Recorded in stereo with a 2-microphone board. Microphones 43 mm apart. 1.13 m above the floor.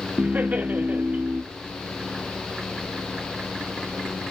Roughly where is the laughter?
Right.